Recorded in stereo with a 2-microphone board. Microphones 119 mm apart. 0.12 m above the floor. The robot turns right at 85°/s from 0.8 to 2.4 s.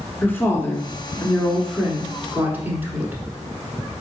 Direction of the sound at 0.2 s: 15° left (ahead or behind).